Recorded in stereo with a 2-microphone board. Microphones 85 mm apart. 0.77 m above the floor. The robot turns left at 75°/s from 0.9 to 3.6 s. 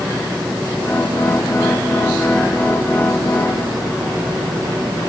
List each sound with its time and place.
Only background noise.